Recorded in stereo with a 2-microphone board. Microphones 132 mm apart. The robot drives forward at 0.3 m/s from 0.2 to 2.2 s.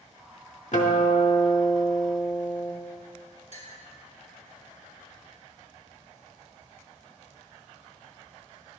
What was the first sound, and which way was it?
A guitar, 65° left (ahead or behind).